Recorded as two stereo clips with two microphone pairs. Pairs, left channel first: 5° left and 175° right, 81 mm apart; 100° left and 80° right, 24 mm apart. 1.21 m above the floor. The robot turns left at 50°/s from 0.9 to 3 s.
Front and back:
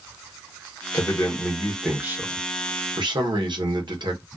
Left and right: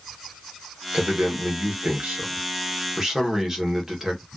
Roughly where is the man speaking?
Ahead right.